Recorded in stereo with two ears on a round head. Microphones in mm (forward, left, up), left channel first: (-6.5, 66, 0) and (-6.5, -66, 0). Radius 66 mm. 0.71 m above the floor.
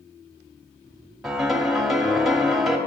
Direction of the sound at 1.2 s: Centre (ahead or behind).